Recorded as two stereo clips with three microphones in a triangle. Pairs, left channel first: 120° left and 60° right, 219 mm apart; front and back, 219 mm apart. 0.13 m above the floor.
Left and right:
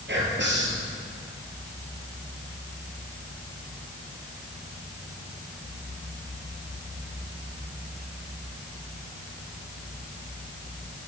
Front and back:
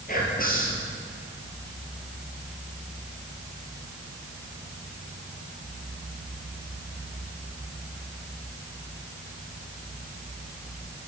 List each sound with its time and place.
0.1 s whispering: 40° right, 3 m